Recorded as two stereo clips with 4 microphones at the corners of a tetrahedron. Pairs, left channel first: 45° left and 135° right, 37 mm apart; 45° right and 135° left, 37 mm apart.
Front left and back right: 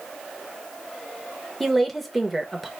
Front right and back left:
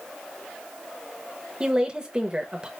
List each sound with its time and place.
1.6 s a woman speaking: 125° left, 0.9 m